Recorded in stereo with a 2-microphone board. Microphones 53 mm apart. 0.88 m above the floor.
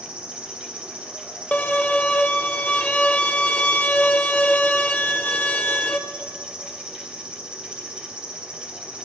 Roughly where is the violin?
Left.